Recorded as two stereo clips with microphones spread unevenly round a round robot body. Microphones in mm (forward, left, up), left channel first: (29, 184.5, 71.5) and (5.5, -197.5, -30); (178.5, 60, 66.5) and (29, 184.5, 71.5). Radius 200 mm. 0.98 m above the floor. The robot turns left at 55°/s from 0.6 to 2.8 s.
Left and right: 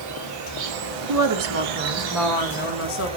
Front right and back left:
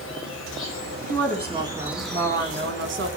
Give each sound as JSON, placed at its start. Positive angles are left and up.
{"t": 0.0, "sound": "an insect", "azimuth_deg": -50, "distance_m": 1.8}
{"t": 1.1, "sound": "a woman speaking", "azimuth_deg": -115, "distance_m": 1.5}